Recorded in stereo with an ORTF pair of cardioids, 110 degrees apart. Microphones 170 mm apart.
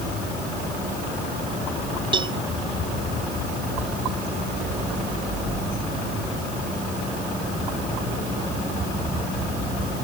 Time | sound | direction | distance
2.1 | a cowbell | 30° right | ?